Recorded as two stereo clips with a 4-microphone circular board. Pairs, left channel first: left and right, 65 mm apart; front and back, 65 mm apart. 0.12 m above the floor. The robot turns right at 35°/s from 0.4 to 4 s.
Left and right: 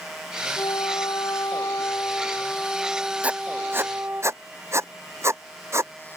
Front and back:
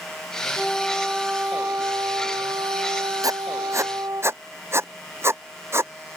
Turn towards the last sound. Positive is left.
turn(degrees=-135)